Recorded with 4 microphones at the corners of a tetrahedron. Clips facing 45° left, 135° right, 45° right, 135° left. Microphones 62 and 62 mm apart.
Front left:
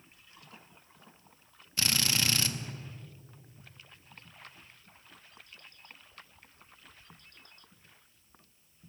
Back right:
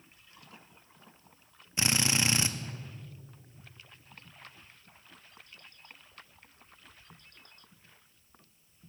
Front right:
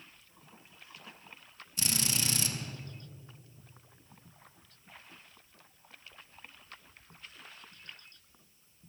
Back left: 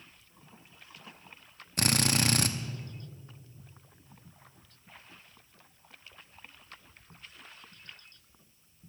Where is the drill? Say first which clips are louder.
Back right 2 dB, back left 7 dB; 155° left, 0.7 m.